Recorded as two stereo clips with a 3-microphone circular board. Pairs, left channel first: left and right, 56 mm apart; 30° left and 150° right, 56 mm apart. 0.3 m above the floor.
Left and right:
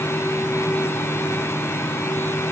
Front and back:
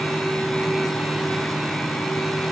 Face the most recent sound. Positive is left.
No sound to turn to.